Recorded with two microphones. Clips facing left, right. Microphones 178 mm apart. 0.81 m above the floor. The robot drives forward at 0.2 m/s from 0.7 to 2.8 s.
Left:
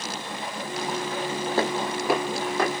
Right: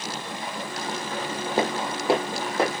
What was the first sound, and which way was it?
Footsteps, 15° right (ahead or behind).